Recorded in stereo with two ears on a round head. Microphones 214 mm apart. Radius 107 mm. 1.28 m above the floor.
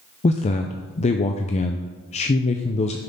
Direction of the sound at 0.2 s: 30° left (ahead or behind).